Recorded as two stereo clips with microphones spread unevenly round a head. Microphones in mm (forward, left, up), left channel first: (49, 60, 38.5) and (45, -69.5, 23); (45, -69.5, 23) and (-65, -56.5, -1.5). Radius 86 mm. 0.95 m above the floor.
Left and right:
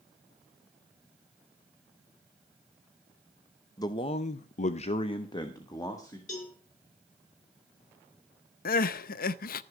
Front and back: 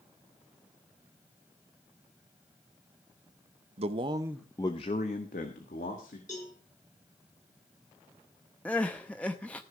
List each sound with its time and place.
3.8 s a man speaking: 160° left, 0.8 m; by 6.2 s 20° left, 2.0 m
6.3 s a cowbell: 65° left, 6 m
8.7 s crying: 75° left, 0.5 m